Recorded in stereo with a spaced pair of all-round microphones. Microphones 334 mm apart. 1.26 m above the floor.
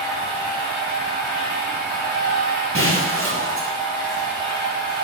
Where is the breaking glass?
40° right (ahead or behind), 1.0 m.